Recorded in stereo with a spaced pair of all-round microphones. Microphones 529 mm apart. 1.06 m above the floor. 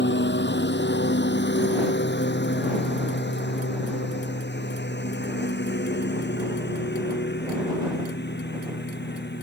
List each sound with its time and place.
0.0 s a lawn mower: 20° left (ahead or behind)